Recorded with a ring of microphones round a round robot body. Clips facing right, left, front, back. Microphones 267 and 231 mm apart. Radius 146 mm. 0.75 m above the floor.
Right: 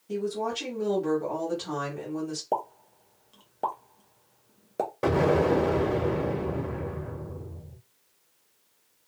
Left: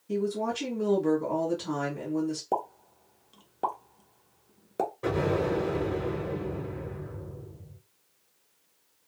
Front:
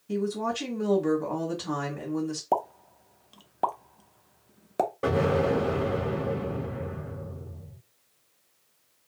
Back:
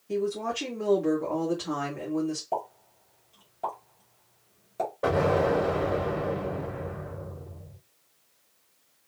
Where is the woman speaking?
15° left, 1.3 m.